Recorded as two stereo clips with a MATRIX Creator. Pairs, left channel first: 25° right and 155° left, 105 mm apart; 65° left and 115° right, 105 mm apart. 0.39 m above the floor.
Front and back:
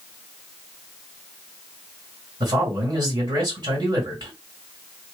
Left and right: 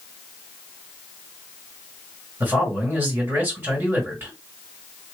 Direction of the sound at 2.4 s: 175° right.